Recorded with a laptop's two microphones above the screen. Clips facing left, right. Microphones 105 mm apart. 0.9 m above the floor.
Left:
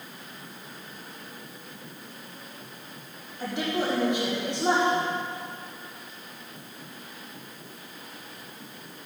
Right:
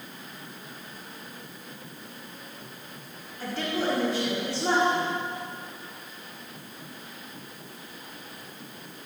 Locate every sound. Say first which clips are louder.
3.4 s a woman speaking: left 1 dB; 20° left (ahead or behind), 5 m